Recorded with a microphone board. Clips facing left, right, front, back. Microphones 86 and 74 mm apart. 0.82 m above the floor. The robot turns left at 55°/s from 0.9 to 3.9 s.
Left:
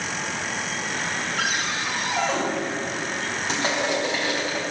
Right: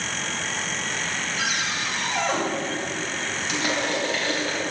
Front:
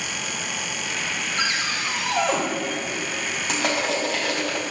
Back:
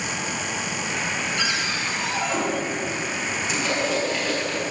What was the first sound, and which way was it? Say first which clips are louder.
A cupboard door: left 1 dB, even; 55° left.